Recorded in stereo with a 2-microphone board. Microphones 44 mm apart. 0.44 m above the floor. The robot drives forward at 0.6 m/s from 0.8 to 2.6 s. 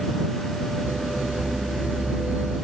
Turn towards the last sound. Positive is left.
No sound to turn to.